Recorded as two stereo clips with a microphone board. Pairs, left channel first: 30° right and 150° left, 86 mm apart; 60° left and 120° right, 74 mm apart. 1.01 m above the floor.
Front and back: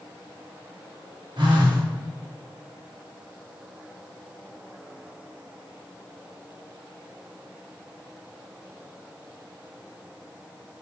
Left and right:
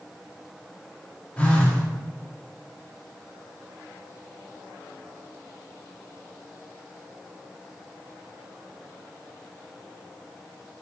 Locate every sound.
1.4 s a phone buzzing: 130° left, 0.8 m